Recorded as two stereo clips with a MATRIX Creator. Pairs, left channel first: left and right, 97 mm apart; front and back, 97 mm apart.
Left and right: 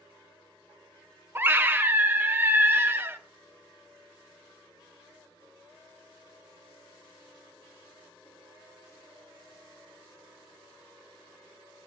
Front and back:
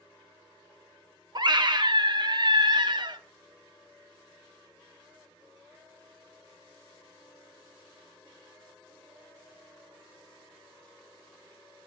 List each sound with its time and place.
1.4 s a scream: 155° right, 0.9 m